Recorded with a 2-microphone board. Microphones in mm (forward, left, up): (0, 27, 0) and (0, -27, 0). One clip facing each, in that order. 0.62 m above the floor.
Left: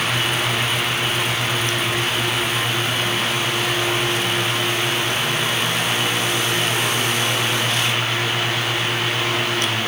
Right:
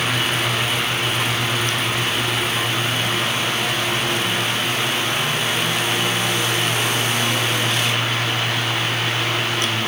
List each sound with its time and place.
Only background noise.